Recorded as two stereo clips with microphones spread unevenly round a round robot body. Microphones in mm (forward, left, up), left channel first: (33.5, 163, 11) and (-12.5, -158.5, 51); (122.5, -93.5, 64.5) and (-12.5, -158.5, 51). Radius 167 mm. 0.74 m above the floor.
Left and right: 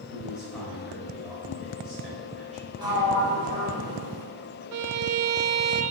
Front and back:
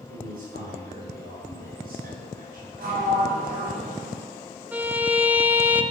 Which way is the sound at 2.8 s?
Straight behind.